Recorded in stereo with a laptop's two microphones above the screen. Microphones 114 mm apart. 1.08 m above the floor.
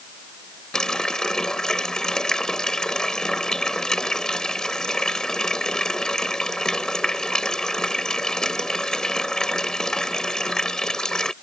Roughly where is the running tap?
Centre.